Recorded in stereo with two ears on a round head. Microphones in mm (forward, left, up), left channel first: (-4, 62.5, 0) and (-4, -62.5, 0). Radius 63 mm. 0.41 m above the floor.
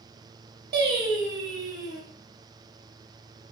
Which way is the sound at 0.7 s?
80° right.